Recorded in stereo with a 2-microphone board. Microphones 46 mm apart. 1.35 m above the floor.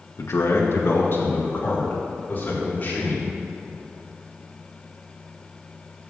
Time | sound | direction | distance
0.2 | a man speaking | 85° left | 1.1 m